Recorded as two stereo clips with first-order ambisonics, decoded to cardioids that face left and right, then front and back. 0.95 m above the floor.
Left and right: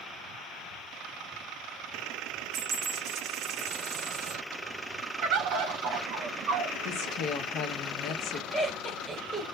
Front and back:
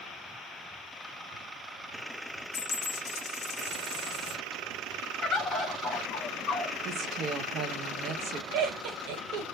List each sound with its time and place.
2.5 s a dropped coin: 40° right, 0.5 m
5.2 s a bird: 65° right, 0.7 m
6.8 s a woman speaking: 130° left, 0.6 m
8.5 s laughter: straight behind, 1.2 m